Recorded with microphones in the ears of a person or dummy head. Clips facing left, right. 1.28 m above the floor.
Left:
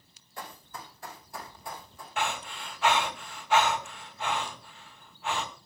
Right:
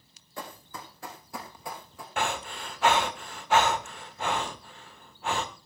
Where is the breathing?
35° right (ahead or behind), 1.1 m.